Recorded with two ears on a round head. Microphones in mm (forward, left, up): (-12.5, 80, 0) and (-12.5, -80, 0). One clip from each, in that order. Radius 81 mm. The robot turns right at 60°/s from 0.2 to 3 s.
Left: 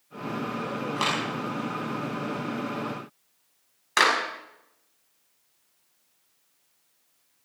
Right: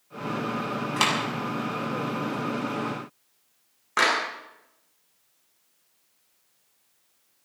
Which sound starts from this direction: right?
A clap, at 1.0 s.